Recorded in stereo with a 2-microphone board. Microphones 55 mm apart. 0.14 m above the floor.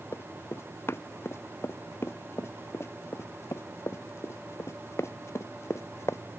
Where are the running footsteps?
50° left (ahead or behind); by 6.2 s 55° left (ahead or behind).